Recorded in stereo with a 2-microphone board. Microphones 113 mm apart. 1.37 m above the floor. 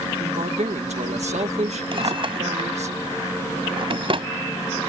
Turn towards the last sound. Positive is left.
turn(degrees=-55)  # may be behind; listen again after turning